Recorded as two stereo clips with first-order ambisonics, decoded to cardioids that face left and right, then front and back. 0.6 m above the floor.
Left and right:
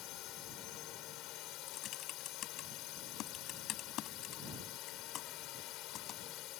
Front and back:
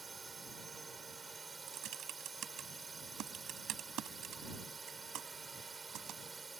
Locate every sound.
0.0 s a drone: 105° left
1.7 s typing on a keyboard: 135° left